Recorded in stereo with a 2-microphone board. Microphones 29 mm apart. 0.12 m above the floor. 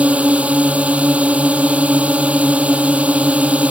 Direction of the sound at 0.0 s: 50° right (ahead or behind).